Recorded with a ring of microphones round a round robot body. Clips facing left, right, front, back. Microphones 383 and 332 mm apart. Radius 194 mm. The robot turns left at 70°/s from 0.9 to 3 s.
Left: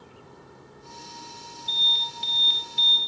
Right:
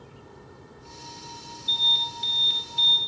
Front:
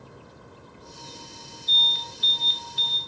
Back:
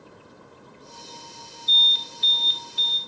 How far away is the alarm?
About 1.3 m.